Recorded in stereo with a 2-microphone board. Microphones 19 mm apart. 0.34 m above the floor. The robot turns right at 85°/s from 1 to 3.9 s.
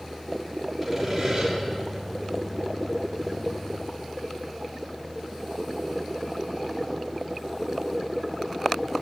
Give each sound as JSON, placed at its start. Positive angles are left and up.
{"t": 0.8, "sound": "sawing", "azimuth_deg": -165, "distance_m": 6.0}